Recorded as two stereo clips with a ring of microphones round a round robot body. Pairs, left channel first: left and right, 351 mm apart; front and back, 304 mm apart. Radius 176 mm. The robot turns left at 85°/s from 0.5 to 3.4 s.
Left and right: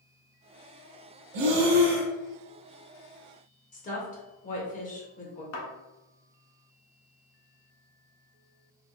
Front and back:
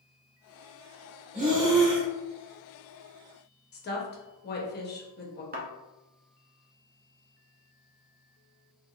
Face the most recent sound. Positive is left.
turn(degrees=125)